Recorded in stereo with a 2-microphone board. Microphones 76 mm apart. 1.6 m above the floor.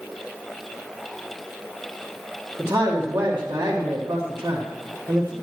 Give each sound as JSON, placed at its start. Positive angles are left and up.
{"t": 2.6, "sound": "a man speaking", "side_deg": -35, "distance_m": 1.5}